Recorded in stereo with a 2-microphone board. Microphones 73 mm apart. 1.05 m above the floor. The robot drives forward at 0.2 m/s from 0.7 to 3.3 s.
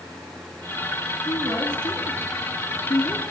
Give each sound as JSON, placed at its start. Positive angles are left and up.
{"t": 1.2, "sound": "a woman speaking", "side_deg": 75, "distance_m": 2.0}